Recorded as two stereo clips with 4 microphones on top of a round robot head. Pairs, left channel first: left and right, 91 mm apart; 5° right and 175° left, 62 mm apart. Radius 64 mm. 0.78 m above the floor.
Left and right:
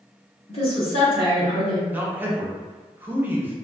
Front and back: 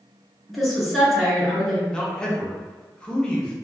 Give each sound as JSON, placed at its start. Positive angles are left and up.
{"t": 0.5, "sound": "a woman speaking", "azimuth_deg": 85, "distance_m": 2.0}
{"t": 1.9, "sound": "a man speaking", "azimuth_deg": -60, "distance_m": 0.7}